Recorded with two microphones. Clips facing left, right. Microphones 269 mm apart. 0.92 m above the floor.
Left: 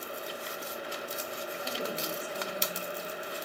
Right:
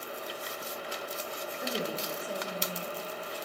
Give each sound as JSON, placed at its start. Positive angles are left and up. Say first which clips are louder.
{"t": 1.6, "sound": "a woman speaking", "louder": "right 3 dB", "side_deg": -65, "distance_m": 5.0}